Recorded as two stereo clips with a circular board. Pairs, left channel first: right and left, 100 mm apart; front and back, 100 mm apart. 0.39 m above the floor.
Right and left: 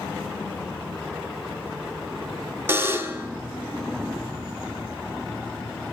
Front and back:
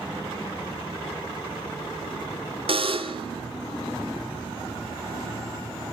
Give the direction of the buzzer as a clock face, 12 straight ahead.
7 o'clock.